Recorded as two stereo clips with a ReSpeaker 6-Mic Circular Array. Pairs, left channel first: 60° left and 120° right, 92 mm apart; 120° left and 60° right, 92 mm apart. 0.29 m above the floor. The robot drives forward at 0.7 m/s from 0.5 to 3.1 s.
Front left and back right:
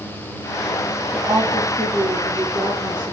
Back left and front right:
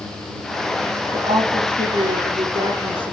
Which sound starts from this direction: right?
A woman speaking, at 1.1 s.